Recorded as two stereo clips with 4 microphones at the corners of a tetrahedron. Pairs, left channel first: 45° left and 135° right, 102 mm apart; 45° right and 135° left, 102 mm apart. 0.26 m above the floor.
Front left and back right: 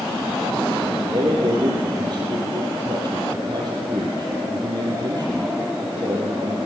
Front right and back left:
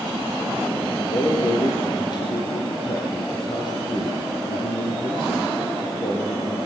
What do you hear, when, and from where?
1.1 s a man speaking: 90° right, 6.5 m